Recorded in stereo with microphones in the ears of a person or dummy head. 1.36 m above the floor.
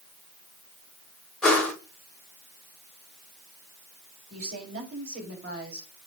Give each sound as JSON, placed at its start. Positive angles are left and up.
{"t": 1.4, "sound": "a whoosh", "side_deg": 5, "distance_m": 3.0}
{"t": 4.3, "sound": "a woman speaking", "side_deg": -50, "distance_m": 5.5}